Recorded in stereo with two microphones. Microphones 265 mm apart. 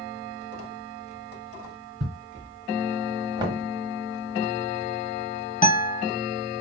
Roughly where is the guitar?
Left.